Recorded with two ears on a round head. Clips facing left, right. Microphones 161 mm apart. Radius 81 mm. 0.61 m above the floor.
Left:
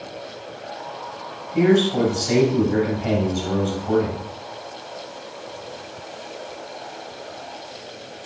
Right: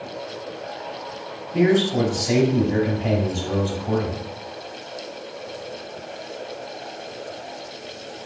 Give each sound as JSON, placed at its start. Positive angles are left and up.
{"t": 1.5, "sound": "a man speaking", "side_deg": -30, "distance_m": 1.7}